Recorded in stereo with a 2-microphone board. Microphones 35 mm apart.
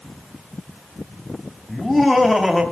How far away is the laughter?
About 2.5 m.